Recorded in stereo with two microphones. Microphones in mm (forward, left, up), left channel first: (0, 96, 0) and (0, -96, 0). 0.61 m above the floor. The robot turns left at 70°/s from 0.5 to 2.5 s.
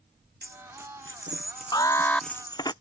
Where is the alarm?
45° left; by 2.3 s 5° left.